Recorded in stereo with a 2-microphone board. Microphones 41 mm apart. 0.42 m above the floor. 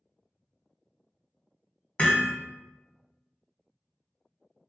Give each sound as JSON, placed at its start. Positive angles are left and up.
{"t": 2.0, "sound": "hammering", "side_deg": 35, "distance_m": 0.8}